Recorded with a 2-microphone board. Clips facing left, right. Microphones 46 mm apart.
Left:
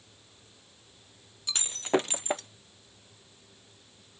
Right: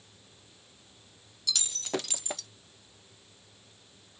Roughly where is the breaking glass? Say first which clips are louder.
Left 6 dB; left.